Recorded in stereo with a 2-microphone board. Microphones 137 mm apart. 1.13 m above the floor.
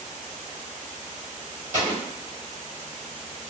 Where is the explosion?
65° right (ahead or behind), 1.5 m.